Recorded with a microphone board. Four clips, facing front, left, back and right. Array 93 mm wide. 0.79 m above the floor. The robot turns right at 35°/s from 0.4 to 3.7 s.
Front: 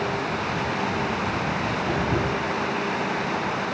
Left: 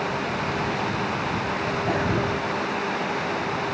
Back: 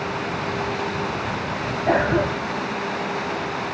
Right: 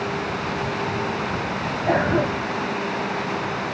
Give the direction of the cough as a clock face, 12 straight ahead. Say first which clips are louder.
Right 6 dB, back 8 dB; 5 o'clock.